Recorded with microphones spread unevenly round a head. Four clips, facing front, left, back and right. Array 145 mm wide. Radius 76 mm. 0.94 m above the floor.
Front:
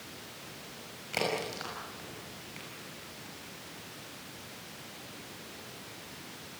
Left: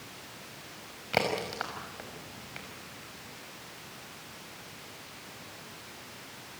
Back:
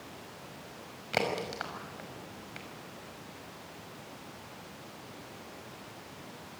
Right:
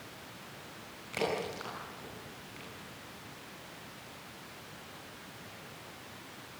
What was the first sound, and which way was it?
A crack, 100° left.